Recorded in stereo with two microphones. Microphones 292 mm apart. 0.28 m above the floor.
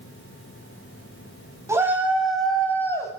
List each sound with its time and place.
1.7 s a shout: 10° right (ahead or behind), 1.9 m; by 3.1 s 10° left (ahead or behind), 2 m